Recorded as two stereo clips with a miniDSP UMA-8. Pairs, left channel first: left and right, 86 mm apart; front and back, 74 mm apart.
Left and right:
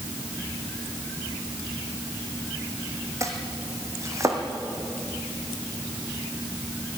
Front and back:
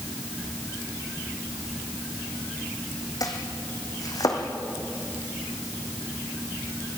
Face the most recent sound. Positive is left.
turn(degrees=-35)